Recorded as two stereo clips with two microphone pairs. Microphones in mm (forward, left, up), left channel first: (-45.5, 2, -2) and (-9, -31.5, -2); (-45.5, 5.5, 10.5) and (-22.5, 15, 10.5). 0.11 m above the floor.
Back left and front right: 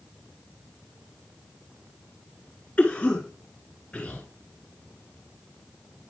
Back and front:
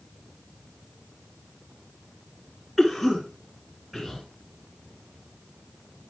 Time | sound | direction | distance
2.8 | a cough | 125° left | 1.3 m